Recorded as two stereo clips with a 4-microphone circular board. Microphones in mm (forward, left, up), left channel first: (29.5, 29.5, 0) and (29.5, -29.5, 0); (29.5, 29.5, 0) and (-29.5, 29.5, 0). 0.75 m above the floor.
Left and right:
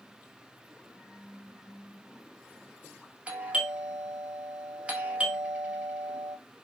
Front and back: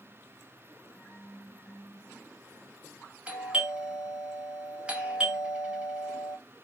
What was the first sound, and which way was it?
A doorbell, 130° right.